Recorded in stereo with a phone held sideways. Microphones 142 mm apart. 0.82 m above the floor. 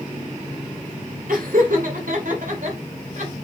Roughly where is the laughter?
Right.